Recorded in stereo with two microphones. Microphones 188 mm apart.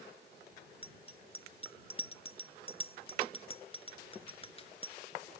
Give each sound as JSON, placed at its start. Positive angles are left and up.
{"t": 0.8, "sound": "a bicycle bell", "side_deg": 30}